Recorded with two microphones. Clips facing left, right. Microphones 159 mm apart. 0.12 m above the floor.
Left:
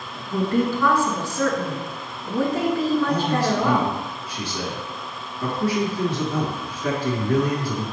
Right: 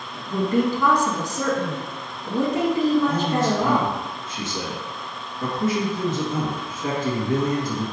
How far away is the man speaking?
About 1.5 m.